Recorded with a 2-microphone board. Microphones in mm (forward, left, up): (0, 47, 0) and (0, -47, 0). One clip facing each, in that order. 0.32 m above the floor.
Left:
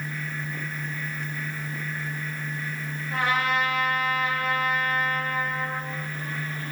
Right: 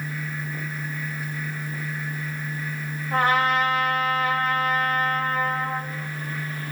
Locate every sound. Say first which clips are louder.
3.1 s a trumpet: right 4 dB; 40° right (ahead or behind), 2.5 m